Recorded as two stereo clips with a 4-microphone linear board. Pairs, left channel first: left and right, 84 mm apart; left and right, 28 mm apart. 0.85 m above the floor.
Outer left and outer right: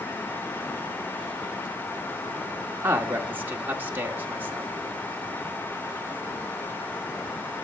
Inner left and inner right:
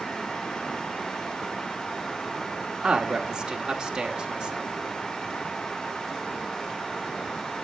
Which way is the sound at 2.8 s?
25° right (ahead or behind).